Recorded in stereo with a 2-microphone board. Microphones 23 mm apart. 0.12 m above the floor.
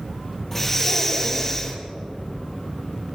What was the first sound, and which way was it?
Breathing, 20° left (ahead or behind).